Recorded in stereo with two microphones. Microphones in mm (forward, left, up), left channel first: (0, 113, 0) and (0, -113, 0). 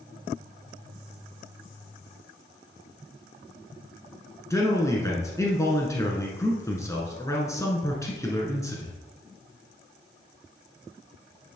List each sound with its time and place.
4.5 s a man speaking: 15° left (ahead or behind), 1.3 m